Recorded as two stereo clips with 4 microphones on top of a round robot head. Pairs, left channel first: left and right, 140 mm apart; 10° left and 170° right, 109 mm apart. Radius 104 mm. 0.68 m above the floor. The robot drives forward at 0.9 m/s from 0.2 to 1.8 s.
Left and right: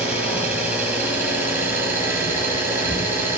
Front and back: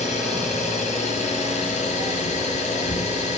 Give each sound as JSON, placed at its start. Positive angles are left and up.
{"t": 0.0, "sound": "an engine running", "azimuth_deg": -10, "distance_m": 7.0}